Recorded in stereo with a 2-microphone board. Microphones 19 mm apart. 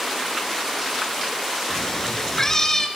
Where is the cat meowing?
25° left (ahead or behind), 2 m.